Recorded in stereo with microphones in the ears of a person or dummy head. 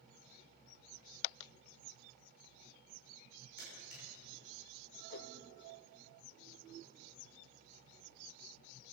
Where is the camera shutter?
50° left (ahead or behind), 6.5 m.